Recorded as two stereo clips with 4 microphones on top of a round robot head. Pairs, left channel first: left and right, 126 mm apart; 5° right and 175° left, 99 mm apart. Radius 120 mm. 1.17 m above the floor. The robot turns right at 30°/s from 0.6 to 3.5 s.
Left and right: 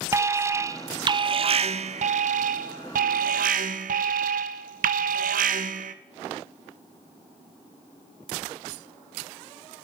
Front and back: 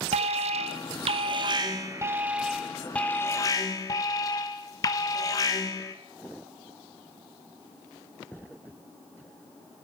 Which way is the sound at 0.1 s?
160° right.